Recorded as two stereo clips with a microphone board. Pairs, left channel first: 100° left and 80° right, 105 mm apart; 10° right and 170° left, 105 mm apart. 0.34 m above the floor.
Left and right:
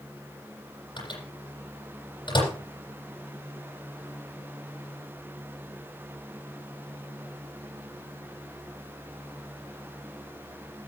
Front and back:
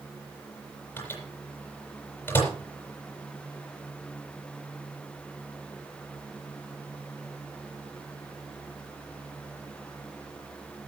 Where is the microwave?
60° left, 8 m.